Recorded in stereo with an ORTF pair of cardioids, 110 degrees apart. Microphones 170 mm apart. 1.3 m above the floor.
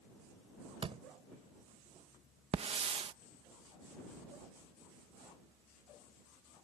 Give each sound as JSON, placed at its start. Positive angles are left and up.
{"t": 0.8, "sound": "a door slam", "azimuth_deg": -35}
{"t": 2.5, "sound": "a hiss", "azimuth_deg": -35}